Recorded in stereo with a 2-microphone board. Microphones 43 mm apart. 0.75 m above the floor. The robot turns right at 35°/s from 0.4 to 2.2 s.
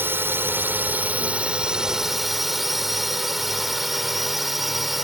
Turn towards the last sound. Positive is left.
turn(degrees=-5)